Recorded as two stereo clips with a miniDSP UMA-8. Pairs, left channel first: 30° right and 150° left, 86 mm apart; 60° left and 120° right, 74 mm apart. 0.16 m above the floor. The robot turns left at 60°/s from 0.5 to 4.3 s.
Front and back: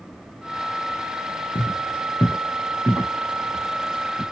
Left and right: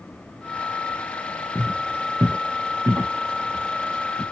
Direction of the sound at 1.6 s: 10° right.